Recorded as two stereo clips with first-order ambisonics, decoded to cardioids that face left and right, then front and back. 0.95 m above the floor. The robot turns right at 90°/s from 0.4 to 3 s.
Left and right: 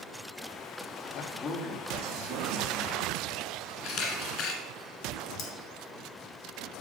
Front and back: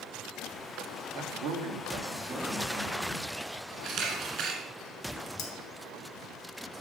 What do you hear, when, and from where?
1.1 s a man speaking: 140° left, 1.4 m; by 3.5 s 50° right, 1.4 m
3.8 s a camera shutter: 125° left, 1.9 m
5.4 s cutlery clinking: 40° left, 1.5 m